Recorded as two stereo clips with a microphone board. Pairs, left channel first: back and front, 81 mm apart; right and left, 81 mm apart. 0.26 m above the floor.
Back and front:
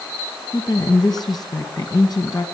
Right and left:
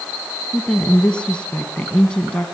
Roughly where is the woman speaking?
Behind.